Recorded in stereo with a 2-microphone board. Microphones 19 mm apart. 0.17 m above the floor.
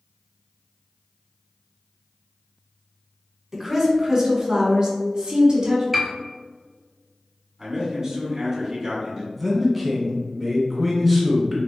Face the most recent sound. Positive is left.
turn(degrees=-5)  # may be behind; listen again after turning